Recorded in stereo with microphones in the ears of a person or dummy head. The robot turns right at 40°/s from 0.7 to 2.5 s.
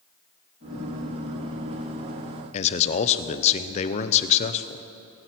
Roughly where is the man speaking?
Left.